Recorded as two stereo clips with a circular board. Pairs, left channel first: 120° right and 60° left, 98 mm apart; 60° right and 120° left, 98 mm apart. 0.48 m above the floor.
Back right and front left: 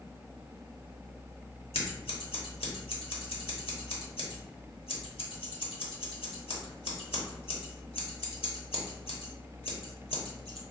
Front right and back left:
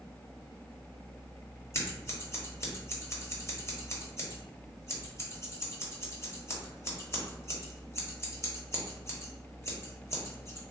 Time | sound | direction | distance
1.7 | scissors | 115° right | 0.8 m